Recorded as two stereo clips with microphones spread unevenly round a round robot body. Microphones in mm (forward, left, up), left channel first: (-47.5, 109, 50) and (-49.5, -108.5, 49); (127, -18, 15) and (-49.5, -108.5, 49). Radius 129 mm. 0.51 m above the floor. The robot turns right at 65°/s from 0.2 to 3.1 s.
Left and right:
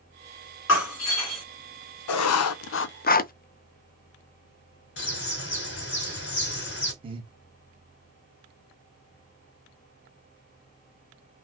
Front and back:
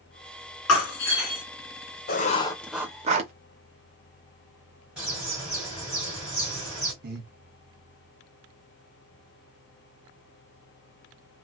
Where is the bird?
120° left, 2.5 m.